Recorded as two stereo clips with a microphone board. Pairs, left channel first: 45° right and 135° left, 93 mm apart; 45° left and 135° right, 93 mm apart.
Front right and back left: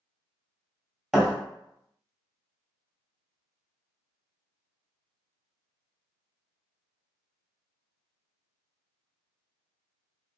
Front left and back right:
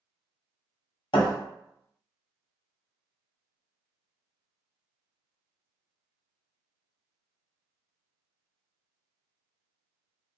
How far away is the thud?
About 1.1 m.